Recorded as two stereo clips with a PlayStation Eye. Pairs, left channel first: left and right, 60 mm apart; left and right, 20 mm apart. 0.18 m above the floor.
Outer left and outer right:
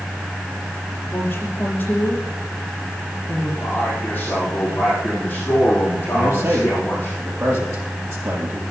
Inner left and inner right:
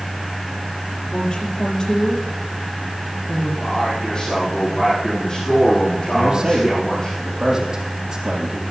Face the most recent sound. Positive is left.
turn(degrees=-45)  # may be behind; listen again after turning